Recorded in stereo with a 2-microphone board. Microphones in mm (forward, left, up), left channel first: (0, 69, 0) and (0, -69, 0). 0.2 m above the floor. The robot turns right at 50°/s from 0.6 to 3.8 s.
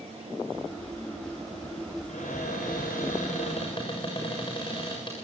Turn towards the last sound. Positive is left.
turn(degrees=145)